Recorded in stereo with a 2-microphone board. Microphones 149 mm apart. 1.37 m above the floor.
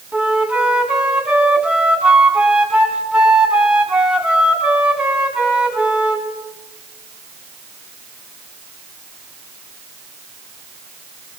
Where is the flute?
5° right (ahead or behind), 2.5 m.